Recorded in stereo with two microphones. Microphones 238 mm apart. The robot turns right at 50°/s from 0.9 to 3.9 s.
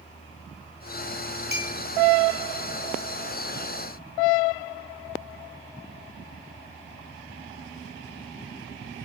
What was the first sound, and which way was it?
A clink, 45° right (ahead or behind).